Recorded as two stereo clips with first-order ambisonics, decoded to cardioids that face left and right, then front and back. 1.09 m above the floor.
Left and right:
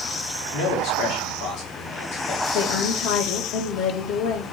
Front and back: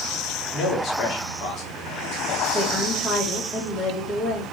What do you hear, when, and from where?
0.5 s a man speaking: 50° left, 3 m
2.5 s a woman speaking: 70° left, 2.5 m